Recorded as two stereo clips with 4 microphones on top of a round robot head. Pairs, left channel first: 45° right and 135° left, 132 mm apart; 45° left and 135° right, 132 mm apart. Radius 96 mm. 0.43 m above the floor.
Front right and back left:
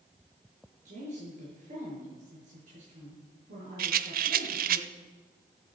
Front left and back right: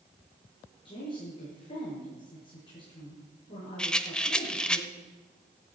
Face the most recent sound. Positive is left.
turn(degrees=130)